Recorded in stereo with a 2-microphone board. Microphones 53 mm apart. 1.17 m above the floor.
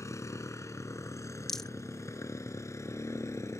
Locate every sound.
0.0 s a motorcycle: 75° left (ahead or behind); by 3.6 s 70° left (ahead or behind)
1.5 s a rattle: 10° left (ahead or behind)